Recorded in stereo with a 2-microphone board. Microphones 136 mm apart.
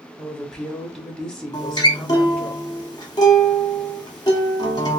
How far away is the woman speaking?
About 1.2 m.